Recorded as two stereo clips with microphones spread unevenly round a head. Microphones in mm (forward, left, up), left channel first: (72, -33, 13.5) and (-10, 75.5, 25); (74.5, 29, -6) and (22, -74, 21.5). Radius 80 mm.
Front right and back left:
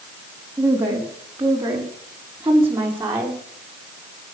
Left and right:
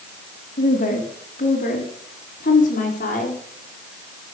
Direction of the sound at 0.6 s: 55° left.